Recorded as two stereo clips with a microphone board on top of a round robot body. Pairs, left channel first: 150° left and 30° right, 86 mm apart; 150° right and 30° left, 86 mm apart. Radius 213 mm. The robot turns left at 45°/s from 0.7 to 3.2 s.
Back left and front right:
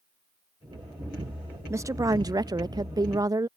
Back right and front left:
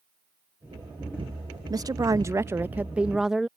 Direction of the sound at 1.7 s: 15° left.